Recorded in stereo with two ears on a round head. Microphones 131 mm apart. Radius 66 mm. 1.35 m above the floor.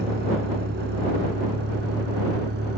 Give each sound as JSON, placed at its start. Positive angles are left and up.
{"t": 0.0, "sound": "a vehicle", "side_deg": -75}